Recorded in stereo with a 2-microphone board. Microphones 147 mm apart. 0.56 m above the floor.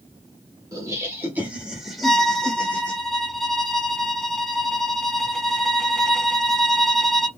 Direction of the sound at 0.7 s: 20° right (ahead or behind).